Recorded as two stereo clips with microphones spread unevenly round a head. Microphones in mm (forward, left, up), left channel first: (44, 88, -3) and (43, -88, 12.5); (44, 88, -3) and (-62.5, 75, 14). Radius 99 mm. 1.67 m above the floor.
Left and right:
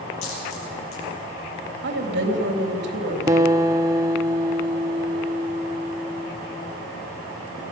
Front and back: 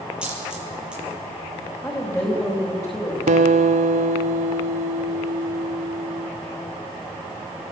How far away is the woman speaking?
About 3.5 m.